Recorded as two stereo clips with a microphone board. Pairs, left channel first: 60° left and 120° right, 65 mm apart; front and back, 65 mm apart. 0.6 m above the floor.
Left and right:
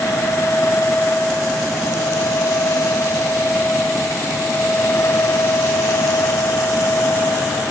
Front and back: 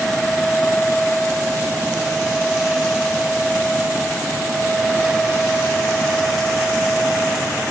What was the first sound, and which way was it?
Only background noise.